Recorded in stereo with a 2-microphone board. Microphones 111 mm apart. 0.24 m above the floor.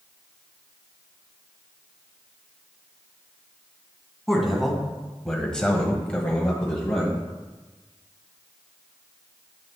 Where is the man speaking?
Centre (ahead or behind), 1.7 m; by 7.3 s 10° left (ahead or behind), 1.6 m.